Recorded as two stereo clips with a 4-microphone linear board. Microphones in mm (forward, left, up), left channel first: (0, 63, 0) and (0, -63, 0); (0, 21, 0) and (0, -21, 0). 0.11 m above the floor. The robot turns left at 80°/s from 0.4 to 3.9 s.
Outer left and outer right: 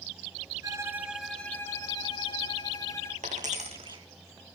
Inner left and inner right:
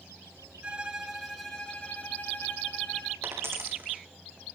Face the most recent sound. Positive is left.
turn(degrees=-40)  # may be behind; listen again after turning